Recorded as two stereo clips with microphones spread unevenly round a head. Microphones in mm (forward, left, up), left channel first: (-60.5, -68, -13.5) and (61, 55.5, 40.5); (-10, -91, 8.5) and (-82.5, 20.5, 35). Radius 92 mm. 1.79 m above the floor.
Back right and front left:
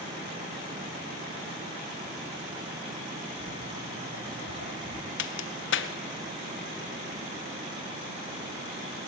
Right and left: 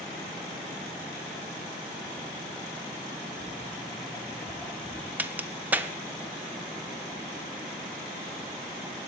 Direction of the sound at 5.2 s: 160° right.